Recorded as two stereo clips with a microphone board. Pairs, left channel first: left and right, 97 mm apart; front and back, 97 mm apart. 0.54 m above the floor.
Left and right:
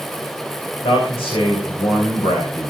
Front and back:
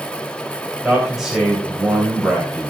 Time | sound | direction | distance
0.8 | a man speaking | 95° left | 3 m